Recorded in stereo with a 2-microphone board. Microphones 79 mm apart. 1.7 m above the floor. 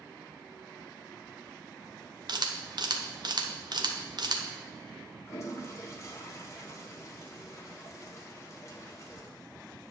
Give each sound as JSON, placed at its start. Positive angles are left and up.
{"t": 2.3, "sound": "a camera shutter", "side_deg": -65, "distance_m": 1.0}
{"t": 5.3, "sound": "a toilet flushing", "side_deg": 35, "distance_m": 1.3}